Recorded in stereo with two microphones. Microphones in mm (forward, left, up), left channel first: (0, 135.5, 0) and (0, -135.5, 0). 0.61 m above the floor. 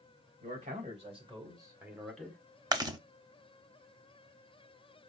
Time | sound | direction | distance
0.4 | a man speaking | 30° right (ahead or behind) | 3.5 m
2.7 | chewing | 15° right (ahead or behind) | 0.7 m